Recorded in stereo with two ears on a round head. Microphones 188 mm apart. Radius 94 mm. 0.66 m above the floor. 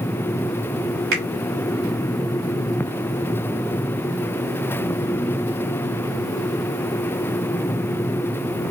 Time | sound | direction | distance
1.1 | a finger snap | 60° right (ahead or behind) | 2.5 m